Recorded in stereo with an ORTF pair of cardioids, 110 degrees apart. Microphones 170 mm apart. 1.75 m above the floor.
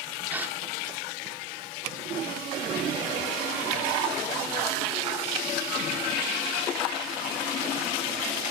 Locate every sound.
0.3 s a gasp: 10° right, 4.5 m